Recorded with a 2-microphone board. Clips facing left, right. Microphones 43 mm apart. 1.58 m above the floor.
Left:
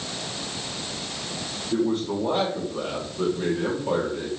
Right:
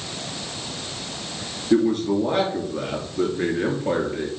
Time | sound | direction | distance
1.7 | a man speaking | 85° right | 3 m